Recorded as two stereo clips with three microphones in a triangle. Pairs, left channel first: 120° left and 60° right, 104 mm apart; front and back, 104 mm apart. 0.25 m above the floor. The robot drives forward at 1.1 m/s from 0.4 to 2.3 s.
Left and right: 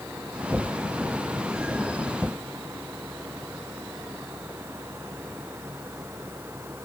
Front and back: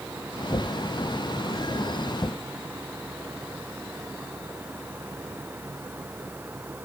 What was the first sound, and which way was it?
Only background noise.